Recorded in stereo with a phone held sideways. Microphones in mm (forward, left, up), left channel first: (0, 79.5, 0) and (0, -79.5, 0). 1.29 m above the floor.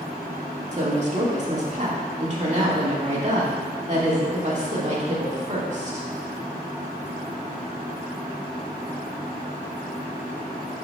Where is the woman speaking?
45° right (ahead or behind), 1.7 m.